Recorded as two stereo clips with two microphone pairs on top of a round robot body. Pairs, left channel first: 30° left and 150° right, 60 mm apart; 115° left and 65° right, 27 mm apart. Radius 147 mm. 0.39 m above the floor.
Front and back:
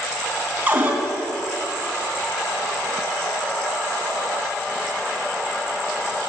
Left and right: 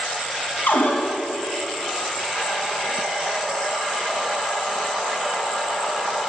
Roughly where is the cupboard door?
Behind left.